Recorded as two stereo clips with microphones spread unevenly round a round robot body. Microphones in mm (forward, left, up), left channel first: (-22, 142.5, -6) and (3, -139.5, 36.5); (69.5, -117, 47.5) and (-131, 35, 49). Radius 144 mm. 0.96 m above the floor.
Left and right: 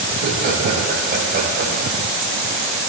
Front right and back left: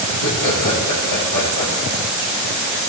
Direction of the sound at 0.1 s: 25° right.